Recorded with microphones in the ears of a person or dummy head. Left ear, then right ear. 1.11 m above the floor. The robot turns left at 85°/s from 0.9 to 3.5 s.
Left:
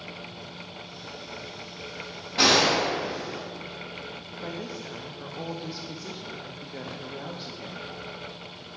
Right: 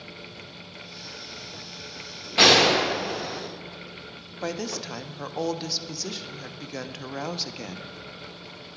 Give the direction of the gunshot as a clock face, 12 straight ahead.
1 o'clock.